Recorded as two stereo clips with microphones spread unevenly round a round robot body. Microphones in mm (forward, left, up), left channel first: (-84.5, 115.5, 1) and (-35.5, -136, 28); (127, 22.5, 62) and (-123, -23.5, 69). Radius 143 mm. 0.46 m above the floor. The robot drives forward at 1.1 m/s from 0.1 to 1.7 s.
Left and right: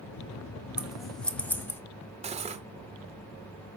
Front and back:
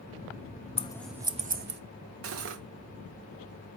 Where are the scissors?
15° left, 0.9 m; by 1.8 s 170° left, 1.1 m.